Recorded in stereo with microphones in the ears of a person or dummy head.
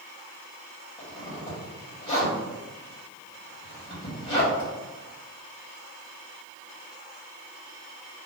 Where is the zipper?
20° left (ahead or behind), 1.4 m.